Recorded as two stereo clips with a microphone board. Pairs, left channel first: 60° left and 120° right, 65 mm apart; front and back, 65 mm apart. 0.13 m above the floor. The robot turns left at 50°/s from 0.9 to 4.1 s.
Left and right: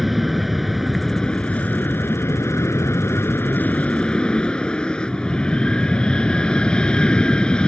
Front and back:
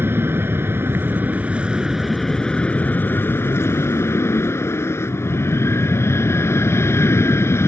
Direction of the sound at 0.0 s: 150° left.